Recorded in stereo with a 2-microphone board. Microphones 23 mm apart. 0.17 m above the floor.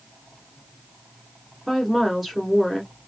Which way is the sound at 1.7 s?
10° right (ahead or behind).